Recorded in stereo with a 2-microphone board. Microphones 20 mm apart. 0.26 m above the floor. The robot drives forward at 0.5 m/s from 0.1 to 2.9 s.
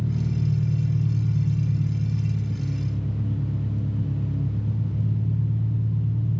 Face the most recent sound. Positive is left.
turn(degrees=-40)  # may be behind; listen again after turning